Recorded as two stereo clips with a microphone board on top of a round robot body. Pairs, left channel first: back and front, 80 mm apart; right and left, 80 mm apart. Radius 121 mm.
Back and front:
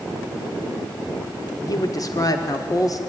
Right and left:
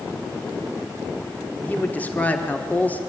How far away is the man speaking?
About 1.4 m.